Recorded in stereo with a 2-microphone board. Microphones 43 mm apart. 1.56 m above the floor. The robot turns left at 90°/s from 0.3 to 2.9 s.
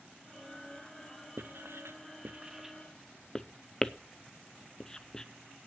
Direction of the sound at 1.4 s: 55° right (ahead or behind).